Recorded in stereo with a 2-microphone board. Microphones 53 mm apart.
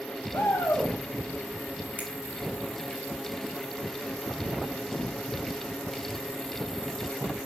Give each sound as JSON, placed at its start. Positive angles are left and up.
{"t": 0.3, "sound": "a shout", "side_deg": 80, "distance_m": 4.0}
{"t": 2.0, "sound": "a finger snap", "side_deg": -35, "distance_m": 2.5}